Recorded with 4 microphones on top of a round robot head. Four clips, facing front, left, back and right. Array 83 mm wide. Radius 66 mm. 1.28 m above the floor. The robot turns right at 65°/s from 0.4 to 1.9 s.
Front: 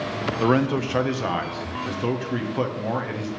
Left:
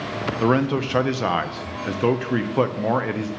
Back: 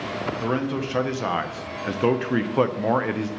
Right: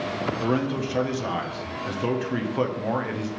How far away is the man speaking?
About 0.7 m.